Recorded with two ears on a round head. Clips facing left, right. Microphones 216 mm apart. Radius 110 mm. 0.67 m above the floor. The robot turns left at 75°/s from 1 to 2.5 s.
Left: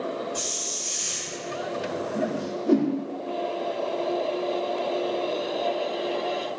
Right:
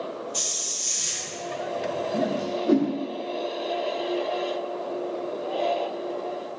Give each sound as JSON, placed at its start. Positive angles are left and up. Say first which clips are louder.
{"t": 0.3, "sound": "a hiss", "louder": "left 3 dB", "side_deg": -40, "distance_m": 0.6}
{"t": 2.1, "sound": "a whoosh", "louder": "right 3 dB", "side_deg": -25, "distance_m": 0.5}